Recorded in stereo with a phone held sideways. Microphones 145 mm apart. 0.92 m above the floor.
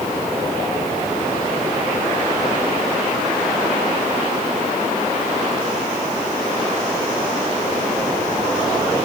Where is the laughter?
I don't hear laughter.